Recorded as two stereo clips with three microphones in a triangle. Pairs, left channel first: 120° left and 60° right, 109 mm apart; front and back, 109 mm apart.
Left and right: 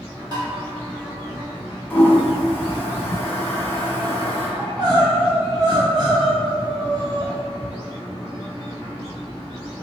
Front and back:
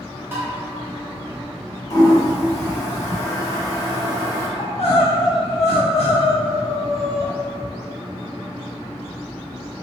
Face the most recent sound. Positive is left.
turn(degrees=-15)